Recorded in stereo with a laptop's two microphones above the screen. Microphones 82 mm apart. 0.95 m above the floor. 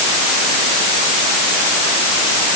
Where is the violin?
I don't hear a violin.